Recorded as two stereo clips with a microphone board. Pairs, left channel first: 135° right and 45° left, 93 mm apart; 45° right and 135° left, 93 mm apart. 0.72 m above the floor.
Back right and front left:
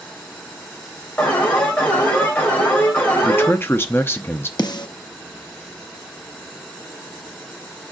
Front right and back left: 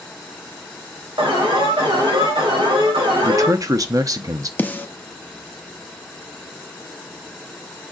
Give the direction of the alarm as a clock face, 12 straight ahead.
7 o'clock.